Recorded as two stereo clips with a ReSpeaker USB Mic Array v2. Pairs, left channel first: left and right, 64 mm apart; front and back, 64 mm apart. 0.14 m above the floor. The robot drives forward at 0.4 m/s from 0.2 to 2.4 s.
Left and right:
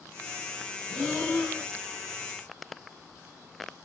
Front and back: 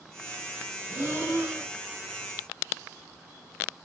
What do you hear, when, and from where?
0.9 s breathing: 170° left, 2 m; by 1.7 s 175° left, 2.5 m